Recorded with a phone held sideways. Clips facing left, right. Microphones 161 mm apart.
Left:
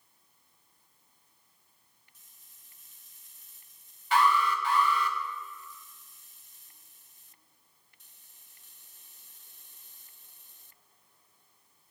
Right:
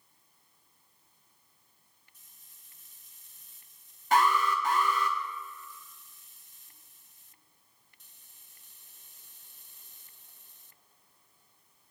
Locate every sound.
4.1 s an alarm: 45° right (ahead or behind), 1.8 m